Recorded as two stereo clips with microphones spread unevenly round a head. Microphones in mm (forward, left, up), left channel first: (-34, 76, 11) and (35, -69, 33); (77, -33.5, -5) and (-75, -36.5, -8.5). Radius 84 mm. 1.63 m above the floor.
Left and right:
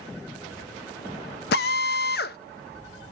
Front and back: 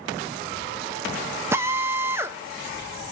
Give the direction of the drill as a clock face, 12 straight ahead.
8 o'clock.